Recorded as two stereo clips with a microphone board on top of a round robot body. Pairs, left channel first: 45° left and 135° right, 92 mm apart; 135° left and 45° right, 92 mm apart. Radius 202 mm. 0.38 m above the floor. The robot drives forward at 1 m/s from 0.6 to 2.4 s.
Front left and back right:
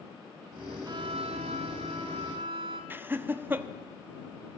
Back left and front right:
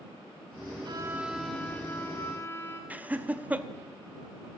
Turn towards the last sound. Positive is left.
turn(degrees=-100)